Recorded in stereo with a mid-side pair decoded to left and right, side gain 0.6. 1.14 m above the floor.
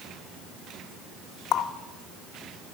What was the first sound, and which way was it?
A running tap, 55° left.